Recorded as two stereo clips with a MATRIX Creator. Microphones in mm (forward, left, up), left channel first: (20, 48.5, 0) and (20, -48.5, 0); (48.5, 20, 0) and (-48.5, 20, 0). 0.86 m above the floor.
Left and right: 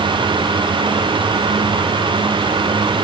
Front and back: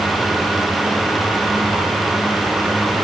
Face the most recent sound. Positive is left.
No sound to turn to.